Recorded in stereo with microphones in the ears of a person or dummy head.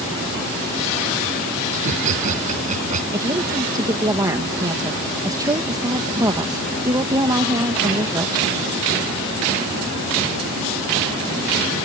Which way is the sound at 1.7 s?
40° right (ahead or behind).